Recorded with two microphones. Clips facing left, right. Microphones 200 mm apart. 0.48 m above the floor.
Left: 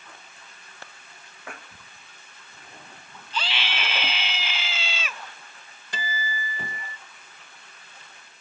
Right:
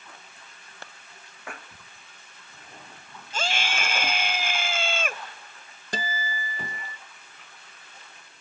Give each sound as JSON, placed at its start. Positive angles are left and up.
{"t": 3.3, "sound": "a scream", "side_deg": -45}
{"t": 5.9, "sound": "a guitar", "side_deg": -45}